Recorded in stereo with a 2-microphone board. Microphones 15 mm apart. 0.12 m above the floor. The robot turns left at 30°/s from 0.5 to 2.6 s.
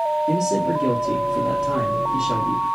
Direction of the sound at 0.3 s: 40° right.